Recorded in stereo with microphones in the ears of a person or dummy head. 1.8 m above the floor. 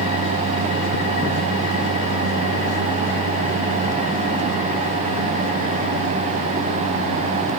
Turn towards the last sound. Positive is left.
No sound to turn to.